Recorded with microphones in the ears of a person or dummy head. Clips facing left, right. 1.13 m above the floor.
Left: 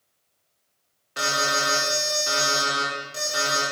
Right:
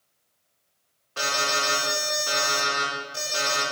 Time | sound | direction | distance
1.2 | an alarm | 15° left (ahead or behind) | 2.5 m